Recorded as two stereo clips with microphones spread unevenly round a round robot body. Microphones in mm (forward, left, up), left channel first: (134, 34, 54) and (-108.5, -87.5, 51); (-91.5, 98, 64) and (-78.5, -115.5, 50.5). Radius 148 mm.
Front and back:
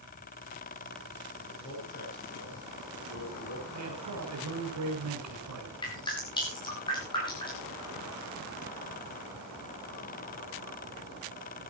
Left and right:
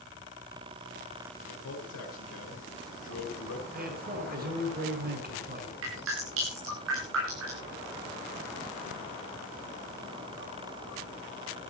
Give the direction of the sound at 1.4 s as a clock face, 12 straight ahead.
9 o'clock.